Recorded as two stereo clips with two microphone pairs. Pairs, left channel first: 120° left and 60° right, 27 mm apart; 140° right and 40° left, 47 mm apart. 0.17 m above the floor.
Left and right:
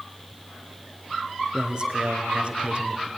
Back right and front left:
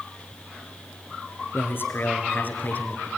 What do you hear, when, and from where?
1.5 s a man speaking: 115° right, 3 m; by 3.1 s 90° right, 2.5 m